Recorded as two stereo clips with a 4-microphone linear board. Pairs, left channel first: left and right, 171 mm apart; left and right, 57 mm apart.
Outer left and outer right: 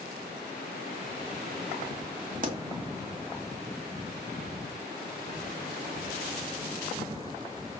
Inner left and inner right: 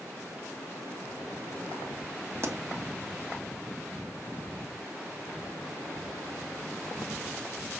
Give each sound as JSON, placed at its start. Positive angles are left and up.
{"t": 2.4, "sound": "a pop", "side_deg": -50, "distance_m": 1.9}